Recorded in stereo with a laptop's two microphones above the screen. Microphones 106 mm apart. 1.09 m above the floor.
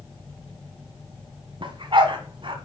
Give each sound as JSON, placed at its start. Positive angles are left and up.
{"t": 1.6, "sound": "a dog barking", "side_deg": -55, "distance_m": 1.8}